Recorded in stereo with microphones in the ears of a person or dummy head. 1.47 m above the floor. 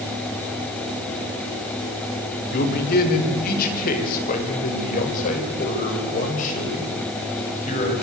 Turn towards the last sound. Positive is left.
turn(degrees=40)  # may be behind; listen again after turning